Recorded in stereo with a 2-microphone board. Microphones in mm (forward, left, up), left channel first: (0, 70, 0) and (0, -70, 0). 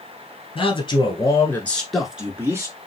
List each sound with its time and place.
0.6 s a man speaking: 40° left (ahead or behind), 1.5 m; by 2.8 s 25° right (ahead or behind), 1.3 m